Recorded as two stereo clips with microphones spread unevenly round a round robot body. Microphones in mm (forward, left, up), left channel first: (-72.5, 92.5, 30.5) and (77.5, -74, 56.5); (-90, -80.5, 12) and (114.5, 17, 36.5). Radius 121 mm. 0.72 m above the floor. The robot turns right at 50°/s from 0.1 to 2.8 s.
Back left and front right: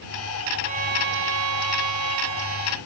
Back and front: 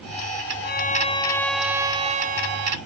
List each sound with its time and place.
0.6 s a violin: 110° right; by 2.8 s 5° right